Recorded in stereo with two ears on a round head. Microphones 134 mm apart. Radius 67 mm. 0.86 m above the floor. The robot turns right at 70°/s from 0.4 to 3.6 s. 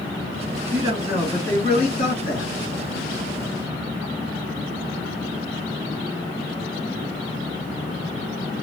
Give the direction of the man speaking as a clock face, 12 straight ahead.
1 o'clock.